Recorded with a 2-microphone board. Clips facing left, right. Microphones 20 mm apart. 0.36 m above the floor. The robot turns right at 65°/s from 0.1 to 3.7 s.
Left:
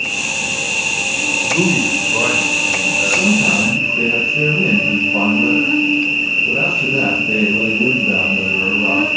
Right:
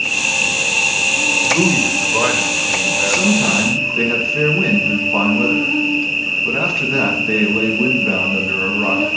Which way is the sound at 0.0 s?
105° right.